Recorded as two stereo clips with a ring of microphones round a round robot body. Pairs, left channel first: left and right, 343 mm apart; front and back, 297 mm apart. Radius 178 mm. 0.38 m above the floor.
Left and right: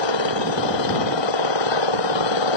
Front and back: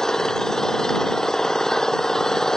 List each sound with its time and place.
0.0 s an engine running: 90° left